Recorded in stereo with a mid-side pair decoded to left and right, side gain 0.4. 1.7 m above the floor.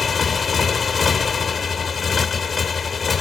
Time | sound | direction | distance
0.0 | a motorcycle | 45° left | ?